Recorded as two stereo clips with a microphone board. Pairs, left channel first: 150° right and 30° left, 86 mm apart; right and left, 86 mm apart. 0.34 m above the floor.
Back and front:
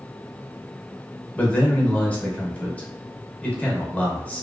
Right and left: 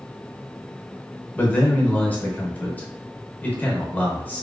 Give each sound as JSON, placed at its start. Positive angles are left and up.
{"t": 1.4, "sound": "a man speaking", "azimuth_deg": -110, "distance_m": 0.8}